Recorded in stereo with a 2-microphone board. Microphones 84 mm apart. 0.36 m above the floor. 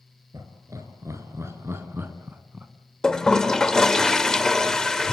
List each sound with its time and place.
0.3 s laughter: 40° right (ahead or behind), 5.5 m; by 2.7 s 15° right (ahead or behind), 3 m
3.0 s a toilet flushing: 10° left (ahead or behind), 1.2 m